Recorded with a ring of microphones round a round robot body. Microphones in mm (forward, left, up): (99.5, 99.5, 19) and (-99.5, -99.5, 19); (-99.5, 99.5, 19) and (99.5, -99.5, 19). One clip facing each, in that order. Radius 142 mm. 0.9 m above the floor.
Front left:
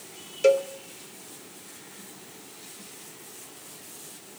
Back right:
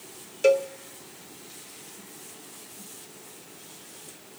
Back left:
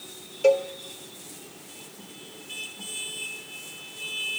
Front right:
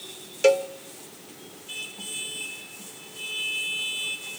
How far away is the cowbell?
About 0.6 m.